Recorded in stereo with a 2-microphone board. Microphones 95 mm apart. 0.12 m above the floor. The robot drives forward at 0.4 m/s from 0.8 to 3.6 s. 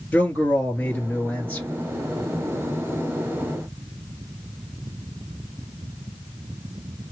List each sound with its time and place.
0.1 s a man speaking: 15° left (ahead or behind), 2.5 m